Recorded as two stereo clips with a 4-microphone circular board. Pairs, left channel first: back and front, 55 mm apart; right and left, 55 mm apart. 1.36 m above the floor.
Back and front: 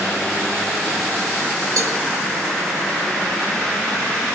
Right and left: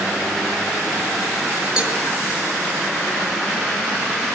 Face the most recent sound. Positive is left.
turn(degrees=10)